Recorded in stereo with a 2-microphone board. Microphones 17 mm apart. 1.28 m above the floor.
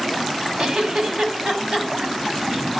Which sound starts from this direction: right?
A giggle, at 0.6 s.